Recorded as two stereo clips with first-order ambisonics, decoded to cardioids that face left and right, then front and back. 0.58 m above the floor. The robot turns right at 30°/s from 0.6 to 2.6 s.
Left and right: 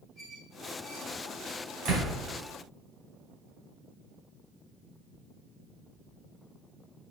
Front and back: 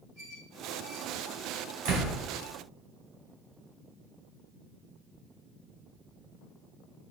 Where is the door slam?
135° right, 3 m; by 2.1 s 130° right, 3 m.